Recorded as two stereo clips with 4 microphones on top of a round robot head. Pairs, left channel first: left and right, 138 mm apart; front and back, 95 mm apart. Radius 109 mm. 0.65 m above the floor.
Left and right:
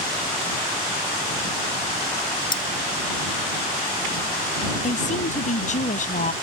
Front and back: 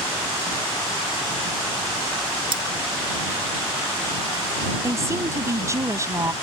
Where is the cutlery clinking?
145° left.